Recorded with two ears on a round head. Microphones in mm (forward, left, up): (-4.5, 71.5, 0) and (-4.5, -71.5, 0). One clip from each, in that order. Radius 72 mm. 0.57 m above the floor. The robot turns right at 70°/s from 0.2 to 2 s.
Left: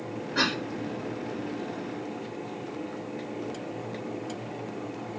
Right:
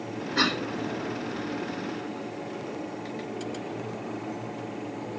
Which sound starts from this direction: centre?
A cough, at 0.3 s.